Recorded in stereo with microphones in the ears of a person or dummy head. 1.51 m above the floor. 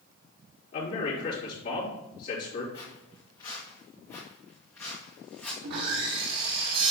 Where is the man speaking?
50° left (ahead or behind), 3 m.